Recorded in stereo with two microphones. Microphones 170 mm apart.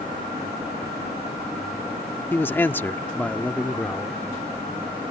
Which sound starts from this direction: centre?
A man speaking, at 2.3 s.